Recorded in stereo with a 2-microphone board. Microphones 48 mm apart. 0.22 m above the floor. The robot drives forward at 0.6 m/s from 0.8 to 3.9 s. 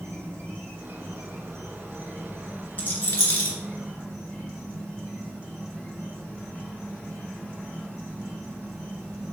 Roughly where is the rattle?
Left.